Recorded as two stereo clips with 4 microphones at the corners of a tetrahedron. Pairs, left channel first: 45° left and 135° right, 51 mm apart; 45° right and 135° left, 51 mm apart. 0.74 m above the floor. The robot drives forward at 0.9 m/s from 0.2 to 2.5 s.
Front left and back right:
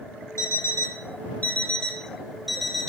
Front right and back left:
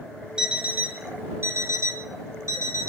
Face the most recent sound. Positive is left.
turn(degrees=135)